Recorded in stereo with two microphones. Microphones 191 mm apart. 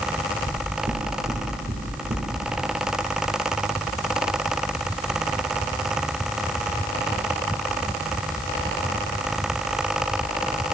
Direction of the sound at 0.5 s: 40° right (ahead or behind).